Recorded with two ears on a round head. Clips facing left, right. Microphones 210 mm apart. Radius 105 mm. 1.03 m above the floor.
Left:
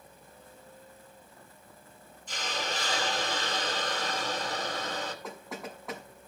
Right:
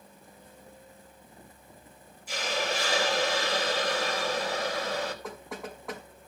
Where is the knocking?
Centre (ahead or behind), 5 m.